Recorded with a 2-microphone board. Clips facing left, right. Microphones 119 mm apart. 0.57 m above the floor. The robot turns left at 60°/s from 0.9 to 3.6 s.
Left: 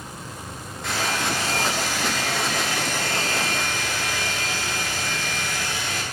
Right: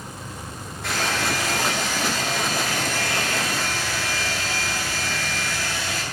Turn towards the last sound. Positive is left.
turn(degrees=20)